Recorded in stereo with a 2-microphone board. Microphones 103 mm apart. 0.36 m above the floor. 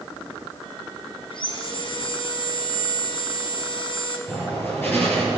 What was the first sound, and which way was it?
Sawing, 55° left (ahead or behind).